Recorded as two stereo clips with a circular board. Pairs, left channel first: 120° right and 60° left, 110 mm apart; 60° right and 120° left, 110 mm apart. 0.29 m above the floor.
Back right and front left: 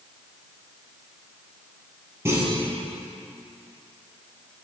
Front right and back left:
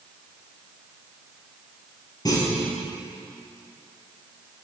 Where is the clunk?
5° right, 2 m.